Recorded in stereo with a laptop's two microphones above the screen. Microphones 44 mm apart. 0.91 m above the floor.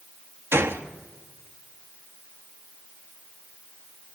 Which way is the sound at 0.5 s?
65° right (ahead or behind).